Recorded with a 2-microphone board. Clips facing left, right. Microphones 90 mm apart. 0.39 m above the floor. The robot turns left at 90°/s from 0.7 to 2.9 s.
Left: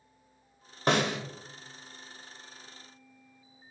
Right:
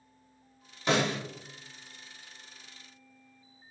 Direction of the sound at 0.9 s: 50° left (ahead or behind).